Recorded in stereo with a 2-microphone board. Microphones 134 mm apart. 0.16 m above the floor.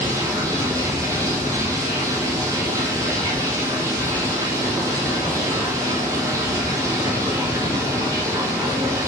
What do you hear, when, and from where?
0.0 s running water: 20° right (ahead or behind), 2 m